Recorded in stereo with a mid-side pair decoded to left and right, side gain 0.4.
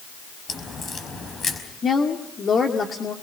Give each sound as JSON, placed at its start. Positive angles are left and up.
{"t": 0.5, "sound": "a crack", "azimuth_deg": 40, "distance_m": 5.0}
{"t": 1.8, "sound": "a woman speaking", "azimuth_deg": 45, "distance_m": 2.0}